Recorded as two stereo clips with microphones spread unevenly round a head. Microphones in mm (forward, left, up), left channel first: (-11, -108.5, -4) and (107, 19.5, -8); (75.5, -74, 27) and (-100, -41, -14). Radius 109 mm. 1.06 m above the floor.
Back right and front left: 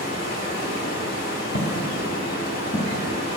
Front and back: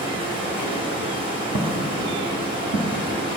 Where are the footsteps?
110° right, 1.2 m; by 3.0 s 135° left, 1.5 m.